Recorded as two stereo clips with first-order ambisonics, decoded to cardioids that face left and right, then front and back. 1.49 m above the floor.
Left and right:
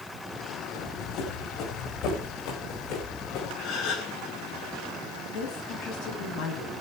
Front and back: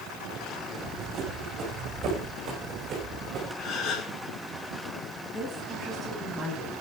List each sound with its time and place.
0.7 s running footsteps: 130° left, 6.5 m; by 3.5 s 120° left, 7.5 m
3.6 s a gasp: 55° left, 5.5 m
5.3 s a woman speaking: 100° left, 9.5 m